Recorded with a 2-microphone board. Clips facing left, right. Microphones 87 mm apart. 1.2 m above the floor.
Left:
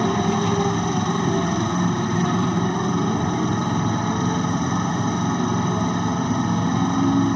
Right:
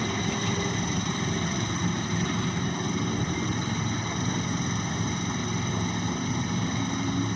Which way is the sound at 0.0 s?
50° left (ahead or behind).